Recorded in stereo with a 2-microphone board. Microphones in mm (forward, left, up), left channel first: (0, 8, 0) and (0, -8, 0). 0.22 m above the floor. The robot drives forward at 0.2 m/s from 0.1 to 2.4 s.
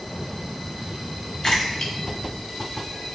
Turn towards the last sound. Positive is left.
turn(degrees=40)  # may be behind; listen again after turning